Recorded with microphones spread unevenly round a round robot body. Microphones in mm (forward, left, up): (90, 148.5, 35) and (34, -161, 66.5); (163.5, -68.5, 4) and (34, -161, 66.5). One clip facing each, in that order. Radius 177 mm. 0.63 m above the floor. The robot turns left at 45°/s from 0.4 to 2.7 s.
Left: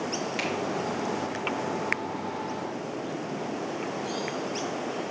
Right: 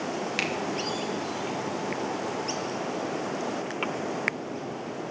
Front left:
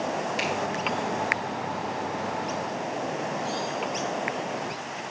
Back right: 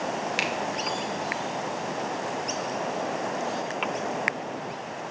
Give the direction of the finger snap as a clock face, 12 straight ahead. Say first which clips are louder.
Even, front left 1 dB; 6 o'clock.